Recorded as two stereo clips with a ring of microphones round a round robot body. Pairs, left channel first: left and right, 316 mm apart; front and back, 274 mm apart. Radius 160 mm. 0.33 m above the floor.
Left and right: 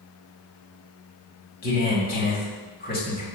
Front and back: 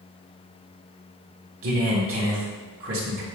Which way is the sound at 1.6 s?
150° left.